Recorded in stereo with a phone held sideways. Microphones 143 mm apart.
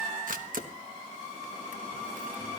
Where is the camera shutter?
75° right (ahead or behind), 1.2 m.